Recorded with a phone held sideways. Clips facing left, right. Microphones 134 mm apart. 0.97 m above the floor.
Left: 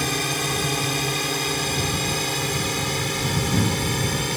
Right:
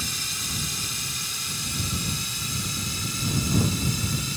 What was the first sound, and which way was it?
A drone, 65° left (ahead or behind).